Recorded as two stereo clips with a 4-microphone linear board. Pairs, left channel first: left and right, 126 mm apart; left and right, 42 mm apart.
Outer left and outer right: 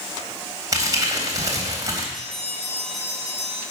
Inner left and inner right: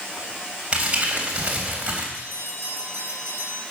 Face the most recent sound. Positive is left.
turn(degrees=-40)  # may be behind; listen again after turning